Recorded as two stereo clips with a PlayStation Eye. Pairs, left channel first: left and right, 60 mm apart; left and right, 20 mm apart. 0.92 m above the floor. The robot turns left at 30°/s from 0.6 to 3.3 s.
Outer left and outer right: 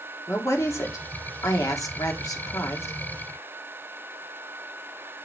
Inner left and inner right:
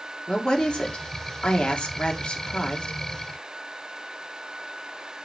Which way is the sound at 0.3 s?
125° left.